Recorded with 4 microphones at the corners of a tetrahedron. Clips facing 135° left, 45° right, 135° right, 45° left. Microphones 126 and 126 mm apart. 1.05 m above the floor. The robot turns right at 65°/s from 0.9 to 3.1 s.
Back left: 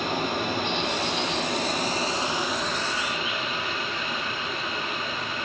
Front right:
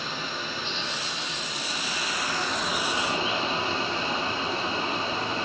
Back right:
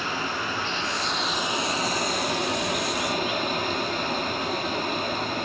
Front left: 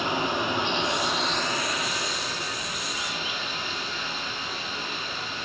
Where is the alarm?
I don't hear an alarm.